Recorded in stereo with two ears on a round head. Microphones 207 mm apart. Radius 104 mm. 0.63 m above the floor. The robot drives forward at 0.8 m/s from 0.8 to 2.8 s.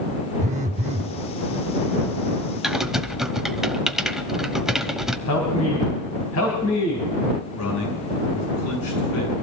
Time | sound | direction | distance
0.4 | a phone buzzing | 30° right (ahead or behind) | 0.6 m
2.6 | typing on a keyboard | centre (ahead or behind) | 0.8 m
5.3 | a man speaking | 80° left | 3.5 m
7.5 | a man speaking | 80° left | 7.5 m